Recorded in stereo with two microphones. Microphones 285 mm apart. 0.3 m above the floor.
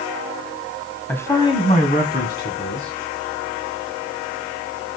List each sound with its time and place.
1.1 s a man speaking: 5° left (ahead or behind), 1.6 m; by 2.9 s 45° left (ahead or behind), 2.5 m